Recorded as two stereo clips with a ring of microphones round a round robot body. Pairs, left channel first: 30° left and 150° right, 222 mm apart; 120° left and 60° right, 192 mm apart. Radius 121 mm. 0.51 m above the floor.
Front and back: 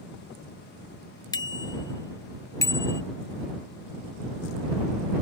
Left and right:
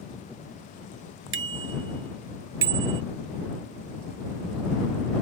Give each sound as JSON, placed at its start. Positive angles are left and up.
{"t": 1.3, "sound": "a bicycle bell", "azimuth_deg": -45}